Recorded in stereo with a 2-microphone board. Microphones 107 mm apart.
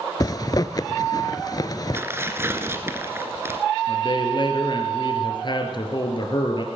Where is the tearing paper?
25° right (ahead or behind), 1.3 m.